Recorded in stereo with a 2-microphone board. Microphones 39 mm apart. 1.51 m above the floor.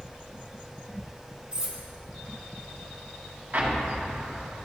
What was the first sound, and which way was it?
Cutlery clinking, 25° right (ahead or behind).